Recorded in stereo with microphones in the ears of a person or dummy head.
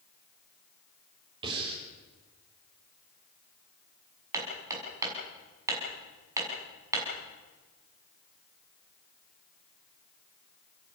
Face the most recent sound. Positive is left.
turn(degrees=-15)  # may be behind; listen again after turning